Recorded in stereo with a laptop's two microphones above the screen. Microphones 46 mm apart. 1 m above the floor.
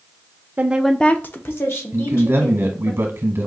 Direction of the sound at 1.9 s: 55° right (ahead or behind).